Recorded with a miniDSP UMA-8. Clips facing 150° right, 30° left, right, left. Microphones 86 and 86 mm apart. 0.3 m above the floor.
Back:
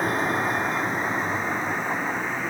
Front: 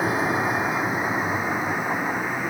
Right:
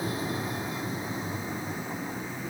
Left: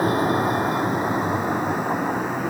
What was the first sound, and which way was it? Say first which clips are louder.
A vehicle: front 1 dB, left 12 dB; 115° left.